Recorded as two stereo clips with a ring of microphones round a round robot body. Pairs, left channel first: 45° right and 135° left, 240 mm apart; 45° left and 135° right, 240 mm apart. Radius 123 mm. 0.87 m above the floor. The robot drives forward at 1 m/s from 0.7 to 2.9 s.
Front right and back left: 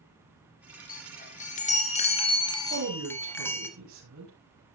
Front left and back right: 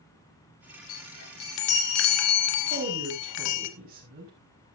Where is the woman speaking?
170° left, 5.5 m.